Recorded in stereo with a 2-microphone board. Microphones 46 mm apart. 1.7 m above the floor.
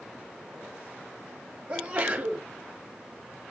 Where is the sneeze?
20° right (ahead or behind), 5 m.